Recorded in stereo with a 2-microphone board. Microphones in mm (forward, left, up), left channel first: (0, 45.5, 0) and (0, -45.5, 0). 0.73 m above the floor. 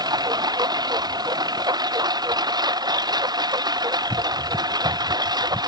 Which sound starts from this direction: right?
A lawn mower, at 0.0 s.